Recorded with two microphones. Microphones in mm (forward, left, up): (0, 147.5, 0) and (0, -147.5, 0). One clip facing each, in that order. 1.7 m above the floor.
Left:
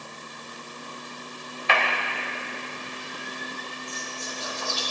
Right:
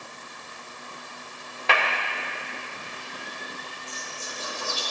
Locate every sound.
1.7 s a clap: 75° right (ahead or behind), 2.5 m
3.9 s whispering: 55° right (ahead or behind), 4.5 m